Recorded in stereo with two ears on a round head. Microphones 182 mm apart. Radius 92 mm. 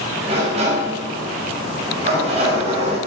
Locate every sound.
0.2 s a sliding door: 30° right (ahead or behind), 5.5 m